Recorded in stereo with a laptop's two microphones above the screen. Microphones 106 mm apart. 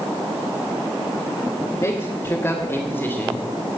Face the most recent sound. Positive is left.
turn(degrees=20)  # may be behind; listen again after turning